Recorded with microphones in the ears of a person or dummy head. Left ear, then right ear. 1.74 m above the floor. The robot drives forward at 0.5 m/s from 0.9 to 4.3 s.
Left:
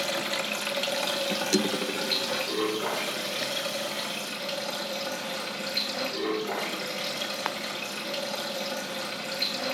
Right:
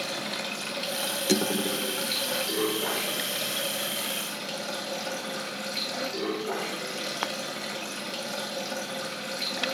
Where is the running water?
20° left (ahead or behind), 0.8 m; by 9.8 s 5° left (ahead or behind), 2.5 m.